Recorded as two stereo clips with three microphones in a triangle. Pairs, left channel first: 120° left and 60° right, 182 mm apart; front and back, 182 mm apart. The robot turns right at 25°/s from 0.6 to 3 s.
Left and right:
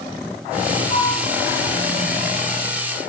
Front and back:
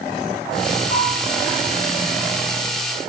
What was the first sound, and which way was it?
A bell, 100° right.